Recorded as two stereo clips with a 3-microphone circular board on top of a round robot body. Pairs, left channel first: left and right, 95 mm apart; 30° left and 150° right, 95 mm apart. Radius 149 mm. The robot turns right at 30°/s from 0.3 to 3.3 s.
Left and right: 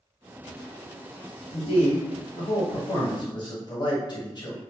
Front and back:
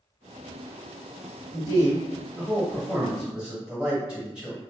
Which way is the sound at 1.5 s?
75° left.